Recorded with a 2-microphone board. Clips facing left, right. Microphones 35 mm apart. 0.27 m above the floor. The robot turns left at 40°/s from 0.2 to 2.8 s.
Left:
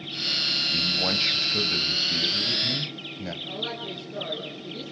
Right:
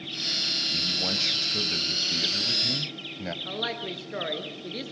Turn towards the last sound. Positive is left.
turn(degrees=-65)  # may be behind; listen again after turning